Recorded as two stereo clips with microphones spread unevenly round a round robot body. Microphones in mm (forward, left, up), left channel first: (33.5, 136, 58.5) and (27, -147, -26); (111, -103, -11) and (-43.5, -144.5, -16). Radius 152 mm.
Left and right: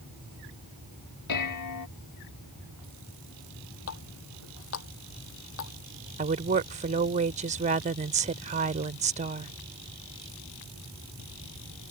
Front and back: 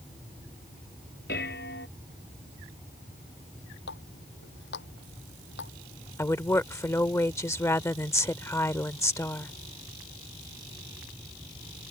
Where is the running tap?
50° left.